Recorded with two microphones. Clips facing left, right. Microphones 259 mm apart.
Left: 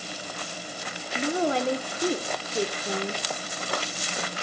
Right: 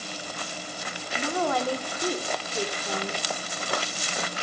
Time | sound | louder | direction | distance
1.1 | a woman speaking | left 2 dB | 25° left (ahead or behind) | 0.9 m